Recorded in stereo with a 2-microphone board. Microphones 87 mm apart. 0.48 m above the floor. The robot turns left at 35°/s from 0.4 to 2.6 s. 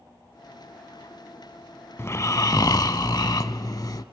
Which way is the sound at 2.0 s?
30° left (ahead or behind).